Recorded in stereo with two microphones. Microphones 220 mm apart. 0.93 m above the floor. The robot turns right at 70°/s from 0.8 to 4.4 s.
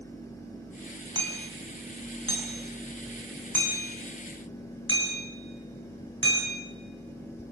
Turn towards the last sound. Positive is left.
turn(degrees=65)  # may be behind; listen again after turning